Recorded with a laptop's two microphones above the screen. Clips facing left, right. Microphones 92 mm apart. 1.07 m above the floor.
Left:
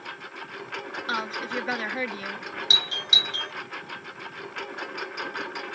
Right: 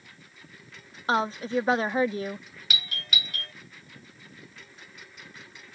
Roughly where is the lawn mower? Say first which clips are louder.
Left 14 dB; left.